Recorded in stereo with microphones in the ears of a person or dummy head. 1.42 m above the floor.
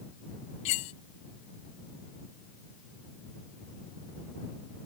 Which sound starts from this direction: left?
Cutlery clinking, at 0.7 s.